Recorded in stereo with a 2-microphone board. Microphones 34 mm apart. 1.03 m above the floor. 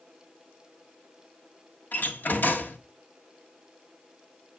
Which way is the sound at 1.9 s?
65° left (ahead or behind).